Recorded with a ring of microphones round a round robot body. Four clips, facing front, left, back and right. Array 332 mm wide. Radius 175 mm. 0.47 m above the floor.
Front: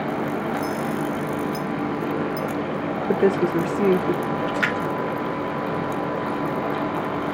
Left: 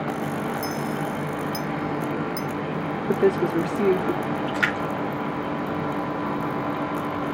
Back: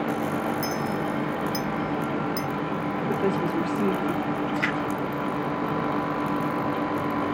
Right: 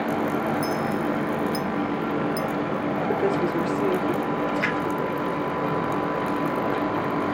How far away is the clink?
About 0.5 m.